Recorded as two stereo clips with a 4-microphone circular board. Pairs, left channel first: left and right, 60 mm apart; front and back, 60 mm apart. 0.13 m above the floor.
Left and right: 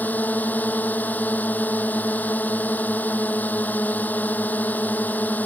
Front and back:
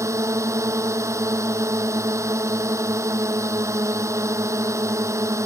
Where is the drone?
150° left.